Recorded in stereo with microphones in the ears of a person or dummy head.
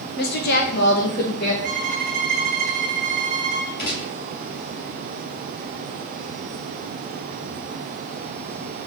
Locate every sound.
0.2 s a woman speaking: 60° left (ahead or behind), 0.9 m
1.6 s a violin: 45° right (ahead or behind), 1.0 m
3.8 s a gunshot: 55° left (ahead or behind), 2.5 m